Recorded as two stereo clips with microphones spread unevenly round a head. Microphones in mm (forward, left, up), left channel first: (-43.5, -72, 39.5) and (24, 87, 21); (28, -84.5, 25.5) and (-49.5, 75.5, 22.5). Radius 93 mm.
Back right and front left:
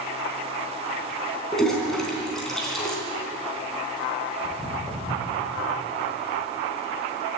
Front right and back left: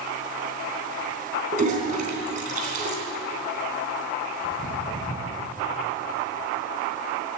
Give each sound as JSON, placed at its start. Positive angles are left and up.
{"t": 1.5, "sound": "a toilet flushing", "azimuth_deg": 160, "distance_m": 3.0}
{"t": 4.4, "sound": "footsteps", "azimuth_deg": -20, "distance_m": 4.5}